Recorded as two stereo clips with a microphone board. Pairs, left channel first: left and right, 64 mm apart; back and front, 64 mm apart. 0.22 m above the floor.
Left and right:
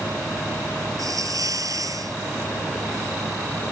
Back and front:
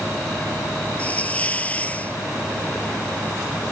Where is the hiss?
115° right.